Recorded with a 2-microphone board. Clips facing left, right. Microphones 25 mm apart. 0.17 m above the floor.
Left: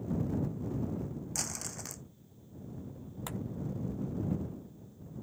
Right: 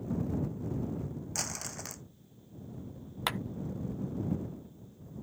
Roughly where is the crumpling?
Centre.